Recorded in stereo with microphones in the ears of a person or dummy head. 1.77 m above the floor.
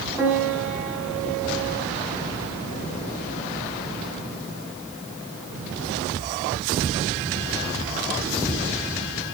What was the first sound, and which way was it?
A piano, 10° right (ahead or behind).